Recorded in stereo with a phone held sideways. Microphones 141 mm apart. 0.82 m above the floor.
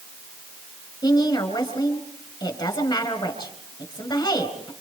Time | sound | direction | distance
1.0 | a woman speaking | 30° left (ahead or behind) | 4 m